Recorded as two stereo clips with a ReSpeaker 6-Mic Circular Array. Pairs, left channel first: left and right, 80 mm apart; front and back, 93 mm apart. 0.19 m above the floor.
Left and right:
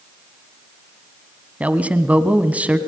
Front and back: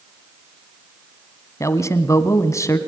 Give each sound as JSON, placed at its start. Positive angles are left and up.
{"t": 1.6, "sound": "a man speaking", "azimuth_deg": -30, "distance_m": 1.4}